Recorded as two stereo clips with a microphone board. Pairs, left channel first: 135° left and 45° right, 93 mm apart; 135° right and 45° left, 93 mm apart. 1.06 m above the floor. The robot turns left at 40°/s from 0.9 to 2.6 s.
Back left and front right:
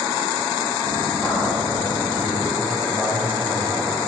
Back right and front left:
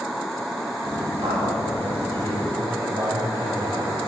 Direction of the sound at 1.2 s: 70° left.